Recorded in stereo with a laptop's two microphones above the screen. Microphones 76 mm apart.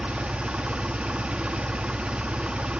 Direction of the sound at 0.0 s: 15° right (ahead or behind).